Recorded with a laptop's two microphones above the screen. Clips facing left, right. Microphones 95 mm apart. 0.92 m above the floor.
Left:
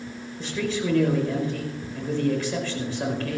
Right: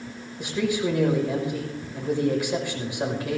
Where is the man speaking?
15° right (ahead or behind), 5.5 m.